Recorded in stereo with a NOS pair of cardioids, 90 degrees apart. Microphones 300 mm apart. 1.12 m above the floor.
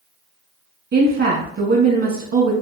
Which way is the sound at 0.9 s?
45° right.